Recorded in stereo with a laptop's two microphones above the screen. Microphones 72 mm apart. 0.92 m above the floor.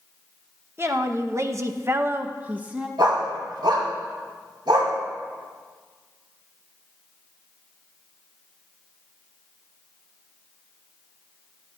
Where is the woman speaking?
35° right (ahead or behind), 0.9 m; by 2.9 s 15° right (ahead or behind), 0.9 m.